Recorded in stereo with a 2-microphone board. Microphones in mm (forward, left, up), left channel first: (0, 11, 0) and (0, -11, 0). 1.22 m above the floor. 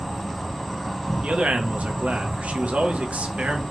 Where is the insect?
5° left (ahead or behind), 0.9 m.